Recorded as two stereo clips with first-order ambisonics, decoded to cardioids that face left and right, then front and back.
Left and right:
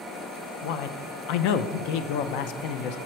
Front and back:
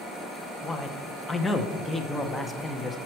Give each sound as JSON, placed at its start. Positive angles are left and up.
{"t": 0.6, "sound": "a man speaking", "azimuth_deg": 85, "distance_m": 0.6}